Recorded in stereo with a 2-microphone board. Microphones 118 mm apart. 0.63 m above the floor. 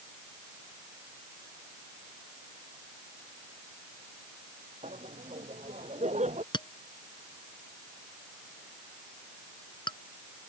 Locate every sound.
4.8 s laughter: 80° right
6.5 s a clink: 40° left (ahead or behind)